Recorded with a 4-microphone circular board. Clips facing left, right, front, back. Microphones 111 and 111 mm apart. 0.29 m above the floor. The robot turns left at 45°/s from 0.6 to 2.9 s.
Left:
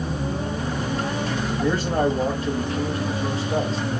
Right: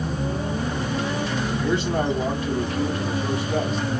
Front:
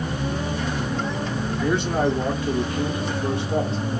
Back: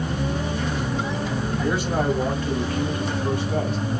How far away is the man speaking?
About 1.8 m.